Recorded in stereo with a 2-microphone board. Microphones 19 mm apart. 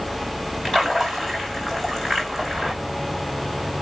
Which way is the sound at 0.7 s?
5° left (ahead or behind).